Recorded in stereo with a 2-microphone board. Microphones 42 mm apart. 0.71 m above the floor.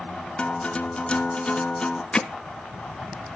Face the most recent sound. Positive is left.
turn(degrees=25)  # may be behind; listen again after turning